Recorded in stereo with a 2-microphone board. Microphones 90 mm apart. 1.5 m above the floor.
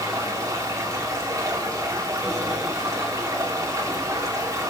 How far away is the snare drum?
No snare drum in this recording.